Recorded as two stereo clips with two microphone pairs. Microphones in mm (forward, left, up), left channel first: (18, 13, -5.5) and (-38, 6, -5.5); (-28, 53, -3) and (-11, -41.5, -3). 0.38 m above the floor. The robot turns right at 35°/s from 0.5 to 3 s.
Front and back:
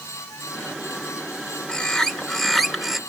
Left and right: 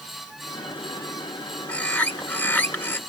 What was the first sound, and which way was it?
A bird, 60° left.